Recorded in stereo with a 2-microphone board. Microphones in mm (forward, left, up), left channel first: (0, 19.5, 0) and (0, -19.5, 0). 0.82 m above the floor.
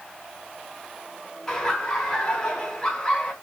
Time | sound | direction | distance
1.5 | laughter | 10° left (ahead or behind) | 3 m